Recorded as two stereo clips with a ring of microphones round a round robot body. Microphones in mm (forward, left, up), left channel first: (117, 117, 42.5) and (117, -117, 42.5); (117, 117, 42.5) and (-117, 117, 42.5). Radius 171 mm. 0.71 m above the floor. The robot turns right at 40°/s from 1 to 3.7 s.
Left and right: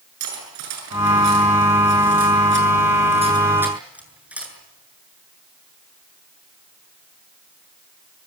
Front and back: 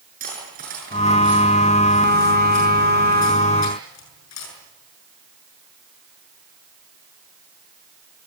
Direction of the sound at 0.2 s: 115° right.